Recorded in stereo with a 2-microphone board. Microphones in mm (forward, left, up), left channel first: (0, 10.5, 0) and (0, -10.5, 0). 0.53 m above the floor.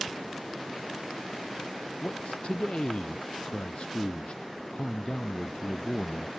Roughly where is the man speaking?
Left.